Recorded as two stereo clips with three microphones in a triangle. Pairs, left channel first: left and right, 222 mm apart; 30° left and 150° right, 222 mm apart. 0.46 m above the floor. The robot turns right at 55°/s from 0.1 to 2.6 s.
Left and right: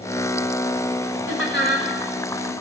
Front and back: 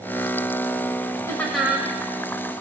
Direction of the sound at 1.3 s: 105° left.